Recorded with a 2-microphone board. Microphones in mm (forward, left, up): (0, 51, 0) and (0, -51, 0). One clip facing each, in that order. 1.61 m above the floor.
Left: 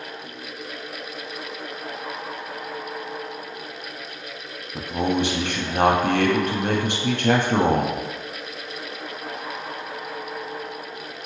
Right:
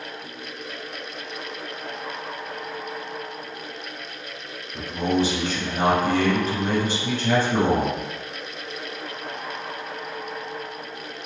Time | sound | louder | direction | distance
4.8 | a man speaking | even | 60° left (ahead or behind) | 0.6 m